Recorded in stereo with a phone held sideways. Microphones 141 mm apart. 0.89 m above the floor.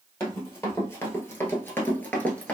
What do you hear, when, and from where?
0.2 s running footsteps: 15° left (ahead or behind), 1.3 m; by 2.6 s 10° left (ahead or behind), 0.9 m